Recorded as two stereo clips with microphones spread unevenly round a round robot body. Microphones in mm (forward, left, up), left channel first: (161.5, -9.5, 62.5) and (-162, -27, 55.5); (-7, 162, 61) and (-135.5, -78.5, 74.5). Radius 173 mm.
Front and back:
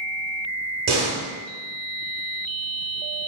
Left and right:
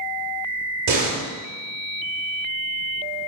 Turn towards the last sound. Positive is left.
turn(degrees=-130)